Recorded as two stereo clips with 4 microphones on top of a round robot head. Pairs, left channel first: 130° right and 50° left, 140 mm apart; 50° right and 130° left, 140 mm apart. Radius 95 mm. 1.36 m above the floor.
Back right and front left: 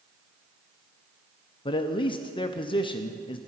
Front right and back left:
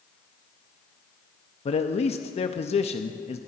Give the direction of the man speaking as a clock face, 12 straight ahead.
3 o'clock.